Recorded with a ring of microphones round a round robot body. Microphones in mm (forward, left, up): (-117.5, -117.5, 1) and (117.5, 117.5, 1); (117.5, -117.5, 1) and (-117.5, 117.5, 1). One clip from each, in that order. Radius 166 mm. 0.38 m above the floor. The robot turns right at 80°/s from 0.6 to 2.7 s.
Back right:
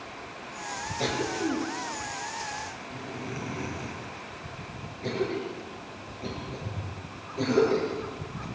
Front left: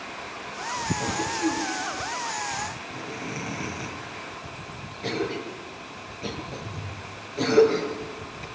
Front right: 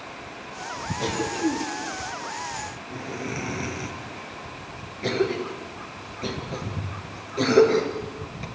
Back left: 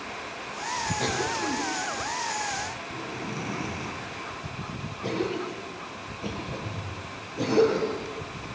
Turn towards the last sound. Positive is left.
turn(degrees=-25)